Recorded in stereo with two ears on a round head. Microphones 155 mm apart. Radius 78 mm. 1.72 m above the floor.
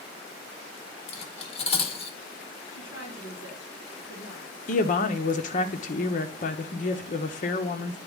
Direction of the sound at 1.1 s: 35° left (ahead or behind).